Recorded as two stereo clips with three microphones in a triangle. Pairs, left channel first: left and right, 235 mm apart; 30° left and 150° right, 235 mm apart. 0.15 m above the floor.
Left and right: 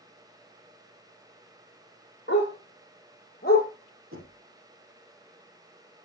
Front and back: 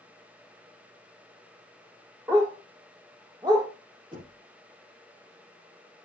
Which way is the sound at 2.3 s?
130° left.